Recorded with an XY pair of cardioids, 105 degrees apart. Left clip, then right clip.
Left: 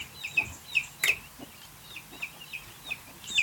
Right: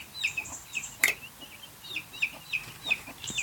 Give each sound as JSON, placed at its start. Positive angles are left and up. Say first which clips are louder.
{"t": 1.0, "sound": "a finger snap", "louder": "right 1 dB", "azimuth_deg": -40, "distance_m": 0.9}